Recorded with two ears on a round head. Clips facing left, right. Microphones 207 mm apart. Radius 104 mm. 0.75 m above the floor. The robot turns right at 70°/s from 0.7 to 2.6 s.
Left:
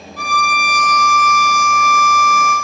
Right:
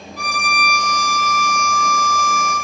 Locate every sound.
0.2 s a violin: 175° right, 1.6 m; by 2.5 s 45° right, 1.6 m